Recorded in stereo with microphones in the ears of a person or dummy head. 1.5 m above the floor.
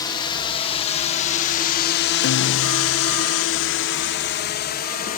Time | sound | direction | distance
0.0 | a drone | 25° left (ahead or behind) | ?
2.2 | a guitar | 70° left (ahead or behind) | ?